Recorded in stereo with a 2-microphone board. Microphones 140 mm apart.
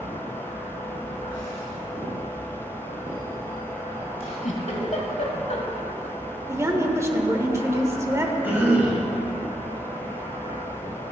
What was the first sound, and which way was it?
A giggle, 55° left (ahead or behind).